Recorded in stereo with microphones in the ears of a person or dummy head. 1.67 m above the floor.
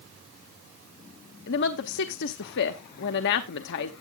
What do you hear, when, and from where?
1.5 s a woman speaking: 60° left (ahead or behind), 0.7 m